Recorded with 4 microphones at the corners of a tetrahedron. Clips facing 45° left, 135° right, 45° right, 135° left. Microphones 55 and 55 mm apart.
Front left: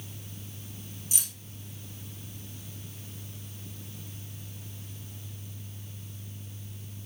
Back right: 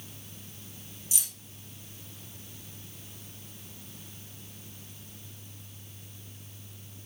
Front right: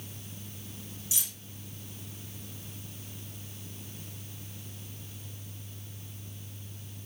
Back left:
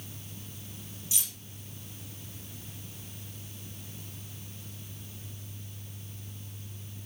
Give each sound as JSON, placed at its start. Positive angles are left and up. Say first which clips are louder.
{"t": 1.1, "sound": "keys jangling", "louder": "even, back left 1 dB", "azimuth_deg": 15, "distance_m": 1.9}